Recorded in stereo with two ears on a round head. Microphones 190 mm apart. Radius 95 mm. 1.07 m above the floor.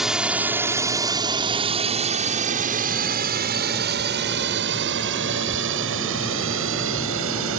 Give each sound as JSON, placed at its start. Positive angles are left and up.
{"t": 0.0, "sound": "a drone", "side_deg": 0}